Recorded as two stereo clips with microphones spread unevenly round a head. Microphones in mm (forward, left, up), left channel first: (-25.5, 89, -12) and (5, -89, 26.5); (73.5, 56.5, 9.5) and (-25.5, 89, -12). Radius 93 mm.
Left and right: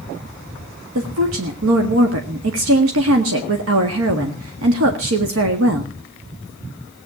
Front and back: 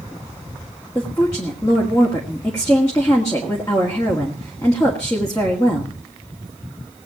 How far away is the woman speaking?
About 1.8 m.